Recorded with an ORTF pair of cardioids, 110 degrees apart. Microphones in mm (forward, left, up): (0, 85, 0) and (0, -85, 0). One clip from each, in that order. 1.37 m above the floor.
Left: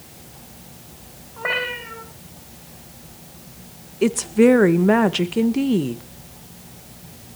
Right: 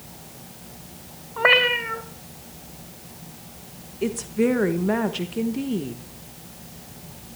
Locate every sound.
1.4 s a cat meowing: 50° right, 3 m
4.0 s a woman speaking: 40° left, 1.4 m